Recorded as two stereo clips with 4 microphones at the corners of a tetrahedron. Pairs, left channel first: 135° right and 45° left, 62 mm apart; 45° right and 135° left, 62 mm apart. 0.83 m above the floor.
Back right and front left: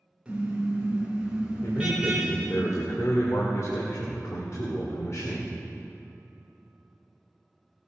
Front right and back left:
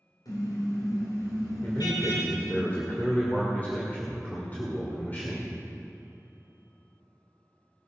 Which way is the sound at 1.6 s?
105° right.